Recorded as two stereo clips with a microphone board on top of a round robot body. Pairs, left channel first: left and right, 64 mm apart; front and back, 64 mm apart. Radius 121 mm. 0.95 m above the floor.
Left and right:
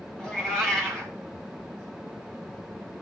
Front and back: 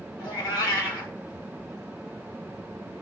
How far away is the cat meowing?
About 1.7 m.